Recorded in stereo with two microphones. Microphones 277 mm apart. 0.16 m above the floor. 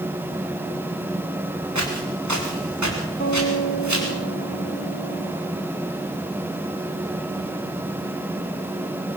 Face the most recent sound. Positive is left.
turn(degrees=30)  # may be behind; listen again after turning